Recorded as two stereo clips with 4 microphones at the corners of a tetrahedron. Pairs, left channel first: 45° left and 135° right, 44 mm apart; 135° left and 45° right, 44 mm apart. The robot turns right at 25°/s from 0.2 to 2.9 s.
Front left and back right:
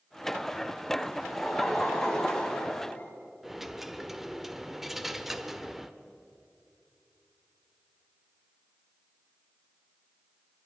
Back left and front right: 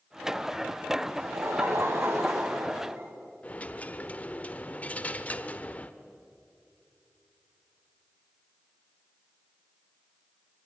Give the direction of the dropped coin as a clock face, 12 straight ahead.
7 o'clock.